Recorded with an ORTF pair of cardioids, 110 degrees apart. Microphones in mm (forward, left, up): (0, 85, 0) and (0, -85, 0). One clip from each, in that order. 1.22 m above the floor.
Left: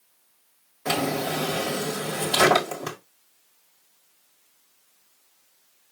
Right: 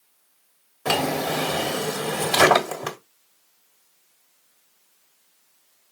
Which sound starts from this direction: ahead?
A drawer, at 0.8 s.